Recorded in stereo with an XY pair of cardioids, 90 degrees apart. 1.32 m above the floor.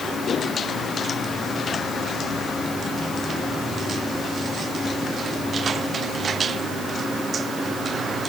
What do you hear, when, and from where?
Only background noise.